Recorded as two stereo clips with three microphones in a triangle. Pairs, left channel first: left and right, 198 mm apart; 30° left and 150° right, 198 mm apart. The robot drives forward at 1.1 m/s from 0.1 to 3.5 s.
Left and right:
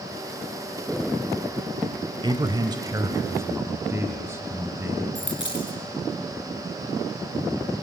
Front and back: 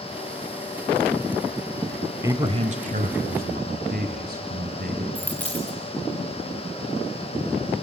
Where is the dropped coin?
110° left, 2.5 m.